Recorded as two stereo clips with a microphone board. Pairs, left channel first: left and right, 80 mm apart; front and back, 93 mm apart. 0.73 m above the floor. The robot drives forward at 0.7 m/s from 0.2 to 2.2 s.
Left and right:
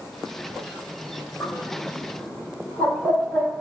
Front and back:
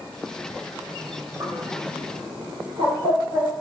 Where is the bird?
145° left, 0.9 m; by 3.6 s 160° left, 1.4 m.